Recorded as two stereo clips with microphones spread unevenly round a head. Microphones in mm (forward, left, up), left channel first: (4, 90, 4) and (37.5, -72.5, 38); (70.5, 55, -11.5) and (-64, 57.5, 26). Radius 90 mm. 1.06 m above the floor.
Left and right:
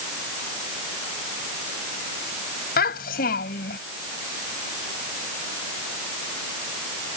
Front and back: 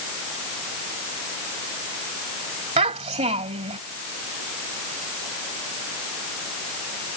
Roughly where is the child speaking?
Behind left.